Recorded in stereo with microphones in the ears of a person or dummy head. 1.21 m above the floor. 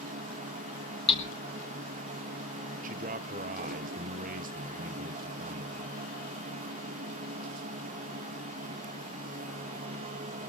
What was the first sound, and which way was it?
A machine running, 40° right (ahead or behind).